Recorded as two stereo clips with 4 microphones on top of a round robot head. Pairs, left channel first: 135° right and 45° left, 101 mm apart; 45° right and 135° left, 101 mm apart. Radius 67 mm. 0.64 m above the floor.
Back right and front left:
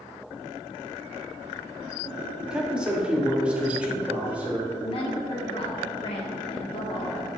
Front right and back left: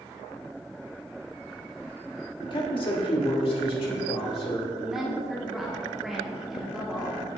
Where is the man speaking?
35° right, 1.6 m; by 4.7 s 30° right, 2.5 m.